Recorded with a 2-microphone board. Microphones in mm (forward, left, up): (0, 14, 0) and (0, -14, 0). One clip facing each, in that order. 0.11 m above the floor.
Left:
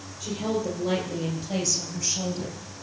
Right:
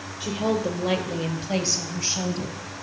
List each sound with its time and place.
0.2 s a woman speaking: 55° right (ahead or behind), 3 m; by 2.6 s 30° right (ahead or behind), 2 m